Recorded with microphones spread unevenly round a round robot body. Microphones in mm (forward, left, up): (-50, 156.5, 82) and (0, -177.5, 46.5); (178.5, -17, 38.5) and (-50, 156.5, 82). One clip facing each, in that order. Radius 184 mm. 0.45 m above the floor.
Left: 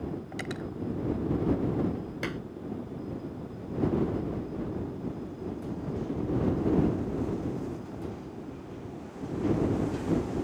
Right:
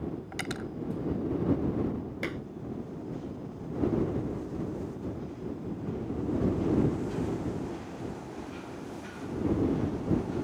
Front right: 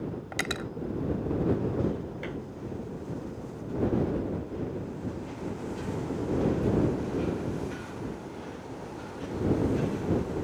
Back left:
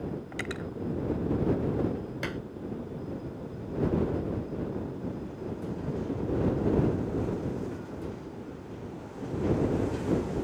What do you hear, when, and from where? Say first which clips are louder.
0.3 s cutlery clinking: left 1 dB, front right 1 dB; 15° right
2.2 s dishes clattering: left 1 dB, even; 170° right